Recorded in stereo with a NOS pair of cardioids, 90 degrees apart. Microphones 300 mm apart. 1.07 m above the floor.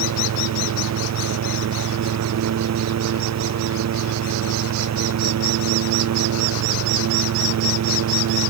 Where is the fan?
60° right.